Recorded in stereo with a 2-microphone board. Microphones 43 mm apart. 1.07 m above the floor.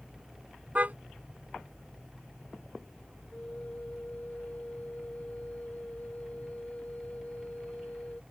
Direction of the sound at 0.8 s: 40° right (ahead or behind).